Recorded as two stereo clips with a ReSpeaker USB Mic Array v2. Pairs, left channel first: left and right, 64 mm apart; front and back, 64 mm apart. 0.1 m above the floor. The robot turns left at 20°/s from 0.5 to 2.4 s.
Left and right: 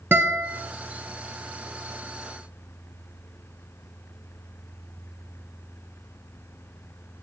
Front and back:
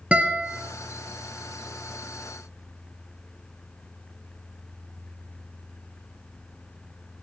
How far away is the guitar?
About 1.0 m.